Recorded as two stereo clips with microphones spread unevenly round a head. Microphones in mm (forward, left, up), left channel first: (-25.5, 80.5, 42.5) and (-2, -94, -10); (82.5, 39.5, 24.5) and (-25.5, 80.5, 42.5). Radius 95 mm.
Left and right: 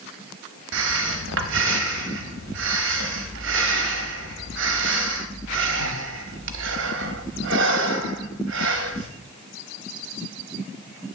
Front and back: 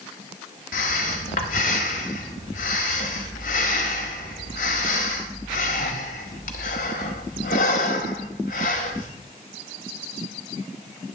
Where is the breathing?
50° right, 1.0 m.